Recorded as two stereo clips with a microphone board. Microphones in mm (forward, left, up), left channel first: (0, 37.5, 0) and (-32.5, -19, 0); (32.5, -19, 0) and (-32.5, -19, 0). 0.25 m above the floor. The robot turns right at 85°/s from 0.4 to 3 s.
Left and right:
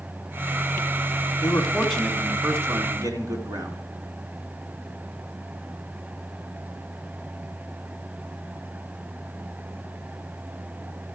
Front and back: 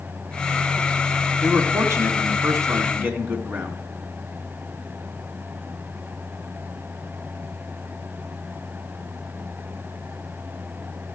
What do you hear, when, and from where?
1.4 s a man speaking: 105° left, 2 m; by 3.8 s 120° right, 2 m